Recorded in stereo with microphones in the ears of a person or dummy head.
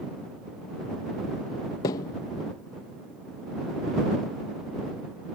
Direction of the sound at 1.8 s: 15° left (ahead or behind).